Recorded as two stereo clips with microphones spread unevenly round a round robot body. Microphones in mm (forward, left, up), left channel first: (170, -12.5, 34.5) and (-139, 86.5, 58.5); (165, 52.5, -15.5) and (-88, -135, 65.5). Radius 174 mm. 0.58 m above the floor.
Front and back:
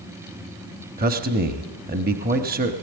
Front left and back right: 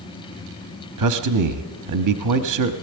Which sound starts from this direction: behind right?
A man speaking, at 1.0 s.